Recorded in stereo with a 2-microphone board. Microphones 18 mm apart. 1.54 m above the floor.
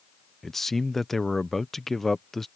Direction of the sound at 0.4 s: 15° left (ahead or behind).